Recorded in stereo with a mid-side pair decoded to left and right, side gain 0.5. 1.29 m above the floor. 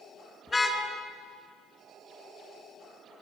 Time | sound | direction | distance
0.5 | a car horn | 30° left | 6.5 m